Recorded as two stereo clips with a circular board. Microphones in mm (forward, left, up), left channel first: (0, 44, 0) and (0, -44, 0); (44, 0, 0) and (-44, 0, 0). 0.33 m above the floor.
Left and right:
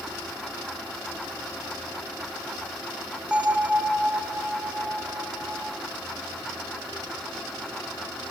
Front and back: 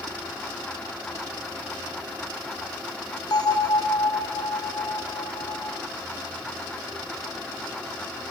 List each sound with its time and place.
3.3 s a bell: 15° right, 1.1 m